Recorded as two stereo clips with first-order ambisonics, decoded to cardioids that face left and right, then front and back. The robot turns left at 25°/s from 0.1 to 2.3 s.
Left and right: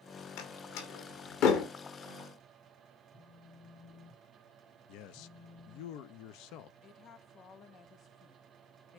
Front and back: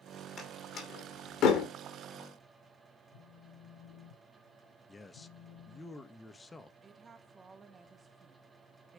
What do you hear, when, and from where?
0.4 s a door slam: 75° left, 2.5 m; by 1.7 s 45° left, 2.5 m
3.1 s a phone buzzing: 10° left, 2.5 m
4.9 s a man speaking: 80° left, 0.8 m
6.8 s a woman speaking: 120° left, 1.0 m